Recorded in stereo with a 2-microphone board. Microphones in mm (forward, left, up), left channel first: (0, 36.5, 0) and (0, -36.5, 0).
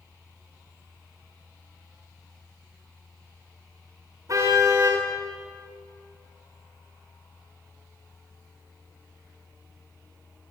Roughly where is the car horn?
Right.